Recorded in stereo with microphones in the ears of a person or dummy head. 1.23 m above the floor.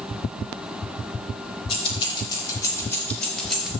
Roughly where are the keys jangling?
Left.